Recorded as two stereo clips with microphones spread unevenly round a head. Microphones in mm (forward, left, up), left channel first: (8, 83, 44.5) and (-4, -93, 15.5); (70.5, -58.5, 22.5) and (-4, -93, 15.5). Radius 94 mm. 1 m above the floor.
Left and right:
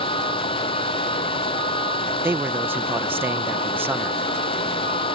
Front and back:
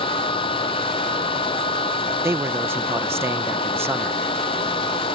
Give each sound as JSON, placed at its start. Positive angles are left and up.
{"t": 0.0, "sound": "a fan", "azimuth_deg": 25}
{"t": 2.2, "sound": "a man speaking", "azimuth_deg": -150}